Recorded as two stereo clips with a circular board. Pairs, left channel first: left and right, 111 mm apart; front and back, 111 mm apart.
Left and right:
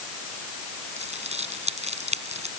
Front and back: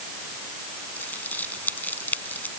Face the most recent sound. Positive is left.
turn(degrees=-75)